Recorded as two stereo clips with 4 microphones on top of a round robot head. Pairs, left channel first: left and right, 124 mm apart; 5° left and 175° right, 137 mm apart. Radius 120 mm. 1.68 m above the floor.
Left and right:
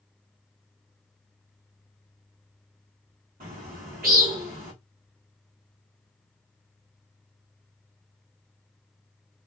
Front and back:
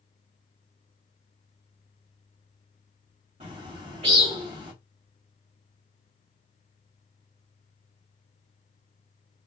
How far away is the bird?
About 1.7 m.